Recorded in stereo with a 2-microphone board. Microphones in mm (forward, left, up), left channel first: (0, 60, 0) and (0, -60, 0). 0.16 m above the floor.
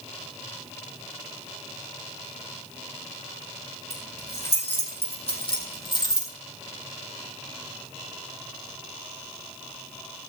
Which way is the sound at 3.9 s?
60° left (ahead or behind).